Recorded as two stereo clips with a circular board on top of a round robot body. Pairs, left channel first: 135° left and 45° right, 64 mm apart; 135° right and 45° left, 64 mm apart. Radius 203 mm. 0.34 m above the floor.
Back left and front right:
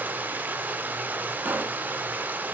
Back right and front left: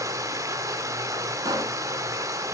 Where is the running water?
15° left, 1.8 m.